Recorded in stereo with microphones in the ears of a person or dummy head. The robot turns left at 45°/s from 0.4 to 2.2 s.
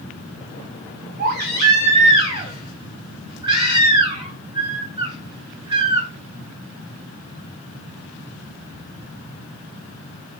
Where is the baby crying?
100° right, 0.7 m; by 6.1 s 145° right, 0.7 m.